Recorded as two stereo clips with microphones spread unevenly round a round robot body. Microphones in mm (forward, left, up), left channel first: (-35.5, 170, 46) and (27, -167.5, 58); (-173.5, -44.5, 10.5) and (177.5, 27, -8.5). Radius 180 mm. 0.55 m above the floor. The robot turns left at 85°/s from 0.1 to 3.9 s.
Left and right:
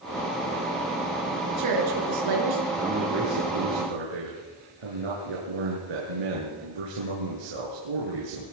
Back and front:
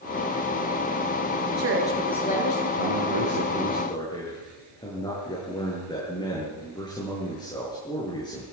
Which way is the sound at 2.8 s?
5° left.